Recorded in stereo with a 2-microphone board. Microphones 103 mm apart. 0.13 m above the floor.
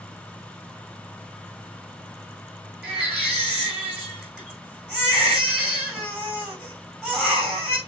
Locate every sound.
2.8 s a baby crying: 15° right (ahead or behind), 6 m